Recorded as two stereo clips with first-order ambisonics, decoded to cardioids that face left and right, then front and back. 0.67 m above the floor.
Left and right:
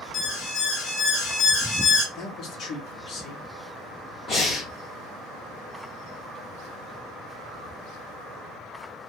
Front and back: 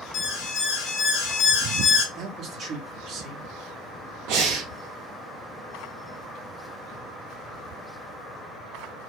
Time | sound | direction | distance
0.1 | an alarm | 40° left | 2.5 m
2.1 | a man speaking | 135° left | 1.2 m
4.3 | breathing | 160° left | 1.6 m